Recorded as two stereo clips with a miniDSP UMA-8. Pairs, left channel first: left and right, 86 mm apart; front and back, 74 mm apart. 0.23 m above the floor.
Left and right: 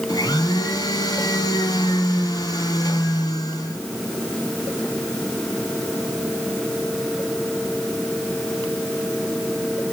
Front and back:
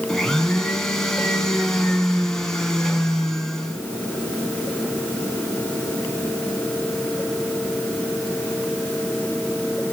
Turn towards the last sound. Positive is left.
turn(degrees=80)